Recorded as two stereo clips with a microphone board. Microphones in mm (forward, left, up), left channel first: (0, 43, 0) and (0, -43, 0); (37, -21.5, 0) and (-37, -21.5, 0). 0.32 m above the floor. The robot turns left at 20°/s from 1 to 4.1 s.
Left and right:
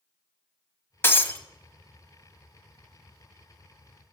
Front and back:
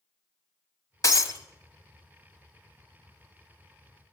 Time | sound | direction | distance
1.0 | breaking glass | 30° left | 1.1 m